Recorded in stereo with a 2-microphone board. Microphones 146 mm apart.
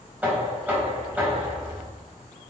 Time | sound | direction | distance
0.2 | knocking | 10° right (ahead or behind) | 3 m